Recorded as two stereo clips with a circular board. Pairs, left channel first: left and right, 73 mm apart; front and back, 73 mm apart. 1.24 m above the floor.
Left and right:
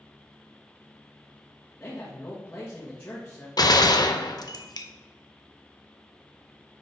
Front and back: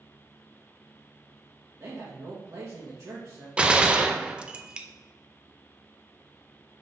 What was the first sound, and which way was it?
A man speaking, 155° left.